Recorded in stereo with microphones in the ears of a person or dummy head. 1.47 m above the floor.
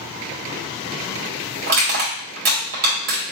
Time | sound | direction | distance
1.7 | crushing | 45° right (ahead or behind) | 1.7 m